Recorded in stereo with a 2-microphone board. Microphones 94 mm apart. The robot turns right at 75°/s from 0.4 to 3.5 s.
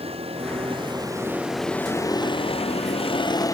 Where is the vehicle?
90° right; by 3.5 s 145° left.